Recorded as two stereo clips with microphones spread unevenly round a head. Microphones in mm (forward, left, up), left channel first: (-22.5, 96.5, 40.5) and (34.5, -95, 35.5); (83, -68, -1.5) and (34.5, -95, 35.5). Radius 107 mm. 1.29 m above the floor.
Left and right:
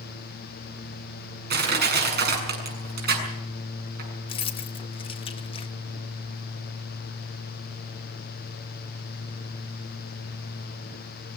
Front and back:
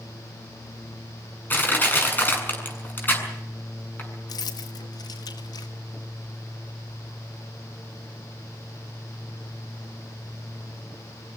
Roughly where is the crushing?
Ahead right.